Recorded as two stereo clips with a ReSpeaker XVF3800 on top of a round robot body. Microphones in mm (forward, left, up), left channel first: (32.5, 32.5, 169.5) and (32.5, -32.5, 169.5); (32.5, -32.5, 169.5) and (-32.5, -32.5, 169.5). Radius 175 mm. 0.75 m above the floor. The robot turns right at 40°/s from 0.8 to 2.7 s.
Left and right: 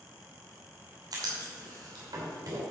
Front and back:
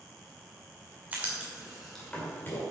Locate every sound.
1.1 s writing: 115° right, 2.5 m; by 2.6 s 55° right, 2.5 m